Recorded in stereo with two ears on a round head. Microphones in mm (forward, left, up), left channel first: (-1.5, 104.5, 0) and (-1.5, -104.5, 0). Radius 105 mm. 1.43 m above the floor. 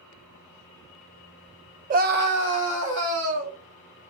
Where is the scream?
35° right (ahead or behind), 0.7 m; by 3.6 s 60° right (ahead or behind), 2.5 m.